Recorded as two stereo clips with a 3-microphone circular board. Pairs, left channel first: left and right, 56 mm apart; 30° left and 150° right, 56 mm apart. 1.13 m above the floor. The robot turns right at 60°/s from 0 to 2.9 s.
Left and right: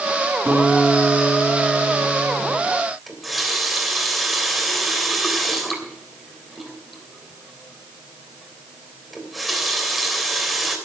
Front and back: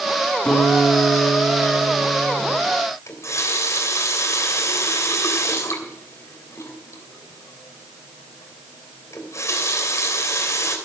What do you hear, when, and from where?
0.5 s a guitar: 40° right, 3.5 m; by 2.6 s 90° left, 3.5 m
3.1 s a running tap: straight ahead, 3 m